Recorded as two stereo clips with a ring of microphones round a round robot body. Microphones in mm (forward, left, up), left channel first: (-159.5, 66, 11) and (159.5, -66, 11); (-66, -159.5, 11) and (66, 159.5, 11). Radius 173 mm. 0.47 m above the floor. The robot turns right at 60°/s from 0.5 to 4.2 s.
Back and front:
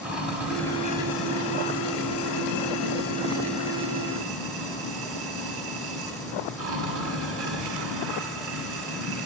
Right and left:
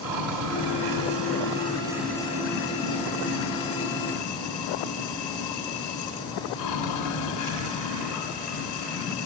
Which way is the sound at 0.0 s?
65° left.